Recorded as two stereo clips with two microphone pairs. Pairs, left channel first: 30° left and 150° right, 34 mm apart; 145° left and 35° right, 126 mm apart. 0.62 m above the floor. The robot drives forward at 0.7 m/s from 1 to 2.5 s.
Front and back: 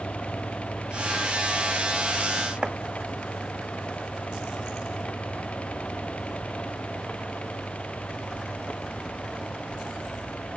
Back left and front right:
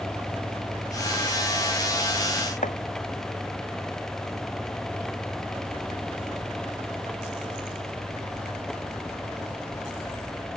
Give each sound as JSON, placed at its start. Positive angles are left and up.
{"t": 2.6, "sound": "chopping", "azimuth_deg": 155}